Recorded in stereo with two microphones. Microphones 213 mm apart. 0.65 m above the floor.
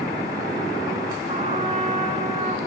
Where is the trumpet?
35° right (ahead or behind), 1.1 m.